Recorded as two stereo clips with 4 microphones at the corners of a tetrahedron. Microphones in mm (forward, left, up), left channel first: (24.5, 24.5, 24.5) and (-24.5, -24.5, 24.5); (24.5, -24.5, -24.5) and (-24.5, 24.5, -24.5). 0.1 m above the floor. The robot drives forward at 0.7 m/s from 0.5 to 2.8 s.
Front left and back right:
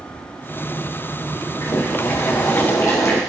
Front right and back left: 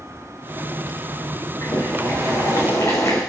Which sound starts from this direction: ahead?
Boiling, at 1.6 s.